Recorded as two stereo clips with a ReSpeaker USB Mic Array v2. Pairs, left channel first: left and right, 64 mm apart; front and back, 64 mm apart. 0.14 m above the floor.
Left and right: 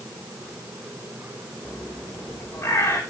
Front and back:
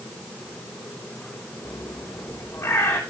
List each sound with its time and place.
1.6 s a bird: 45° left, 3.5 m